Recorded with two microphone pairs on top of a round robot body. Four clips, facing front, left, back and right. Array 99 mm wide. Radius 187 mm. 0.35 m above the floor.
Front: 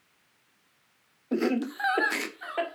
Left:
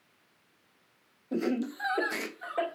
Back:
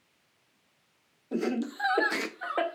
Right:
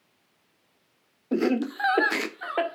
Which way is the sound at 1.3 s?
55° right.